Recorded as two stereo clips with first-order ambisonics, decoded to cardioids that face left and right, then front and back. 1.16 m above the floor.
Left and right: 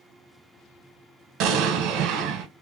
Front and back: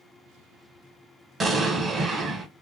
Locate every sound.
1.4 s an explosion: 110° right, 0.8 m